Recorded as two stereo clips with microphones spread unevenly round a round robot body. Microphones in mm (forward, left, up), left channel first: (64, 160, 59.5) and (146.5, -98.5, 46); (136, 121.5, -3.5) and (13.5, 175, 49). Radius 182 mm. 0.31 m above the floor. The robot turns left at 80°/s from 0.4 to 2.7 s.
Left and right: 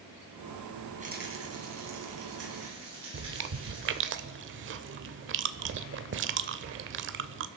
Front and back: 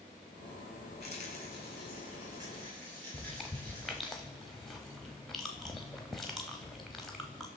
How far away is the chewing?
About 0.6 m.